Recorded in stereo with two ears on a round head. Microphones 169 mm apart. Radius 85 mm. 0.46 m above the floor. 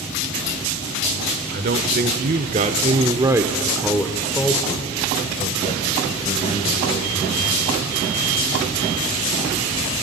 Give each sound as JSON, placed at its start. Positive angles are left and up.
{"t": 1.5, "sound": "a man speaking", "side_deg": -55, "distance_m": 1.2}